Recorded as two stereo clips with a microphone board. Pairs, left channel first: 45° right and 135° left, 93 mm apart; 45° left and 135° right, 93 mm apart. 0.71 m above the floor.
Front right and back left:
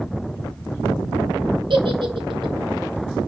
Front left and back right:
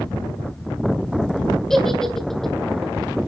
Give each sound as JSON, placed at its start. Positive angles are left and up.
{"t": 1.7, "sound": "a giggle", "azimuth_deg": 130, "distance_m": 1.4}